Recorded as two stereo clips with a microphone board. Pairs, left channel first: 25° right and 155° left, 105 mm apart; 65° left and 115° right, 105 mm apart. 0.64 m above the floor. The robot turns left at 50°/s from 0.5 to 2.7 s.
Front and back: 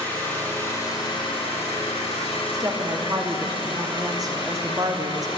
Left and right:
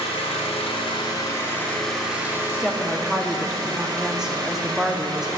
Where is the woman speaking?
175° left, 0.8 m; by 5.3 s 170° left, 0.8 m.